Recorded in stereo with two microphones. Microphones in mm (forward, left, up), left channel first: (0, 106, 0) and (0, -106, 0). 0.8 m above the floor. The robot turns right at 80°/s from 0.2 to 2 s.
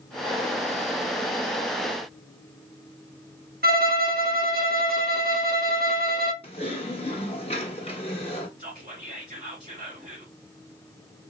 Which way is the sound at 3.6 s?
50° right (ahead or behind).